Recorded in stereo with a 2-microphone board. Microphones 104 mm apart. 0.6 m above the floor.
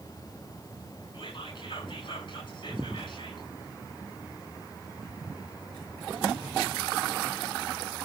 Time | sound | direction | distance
1.1 | whispering | 55° left (ahead or behind) | 7.5 m